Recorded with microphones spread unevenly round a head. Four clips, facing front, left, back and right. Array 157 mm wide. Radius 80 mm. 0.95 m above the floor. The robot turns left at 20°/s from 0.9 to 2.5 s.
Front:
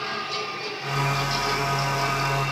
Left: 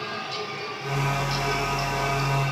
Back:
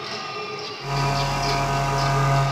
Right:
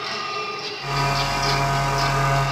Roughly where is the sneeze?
I don't hear a sneeze.